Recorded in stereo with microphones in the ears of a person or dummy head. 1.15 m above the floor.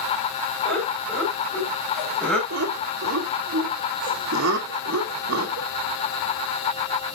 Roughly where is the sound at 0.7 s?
Centre.